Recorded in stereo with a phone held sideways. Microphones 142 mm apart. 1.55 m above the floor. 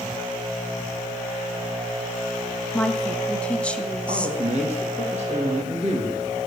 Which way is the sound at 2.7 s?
10° left (ahead or behind).